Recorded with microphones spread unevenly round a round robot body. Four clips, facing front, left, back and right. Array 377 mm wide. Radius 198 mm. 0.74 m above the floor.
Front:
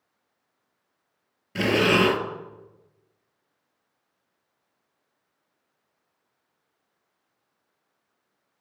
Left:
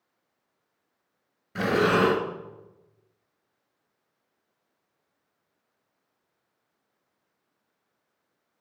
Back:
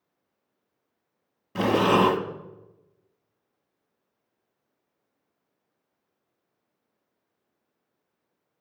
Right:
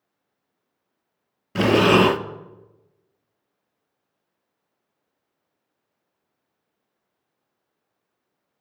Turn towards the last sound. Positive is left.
turn(degrees=-85)